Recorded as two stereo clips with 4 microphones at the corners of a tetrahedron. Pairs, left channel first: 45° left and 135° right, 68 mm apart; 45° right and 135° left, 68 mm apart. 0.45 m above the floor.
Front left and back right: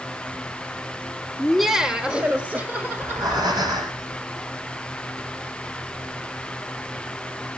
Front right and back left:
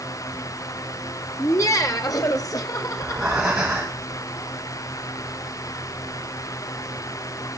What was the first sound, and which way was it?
Laughter, 35° right.